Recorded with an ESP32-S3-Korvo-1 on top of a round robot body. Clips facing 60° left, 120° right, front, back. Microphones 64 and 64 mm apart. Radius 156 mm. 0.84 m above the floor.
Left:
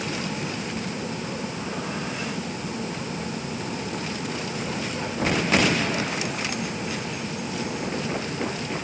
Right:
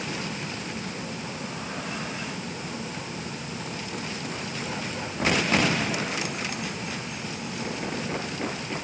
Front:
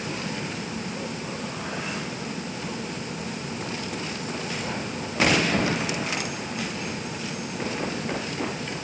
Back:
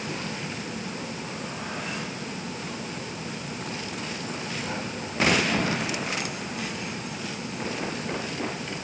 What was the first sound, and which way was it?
Only background noise.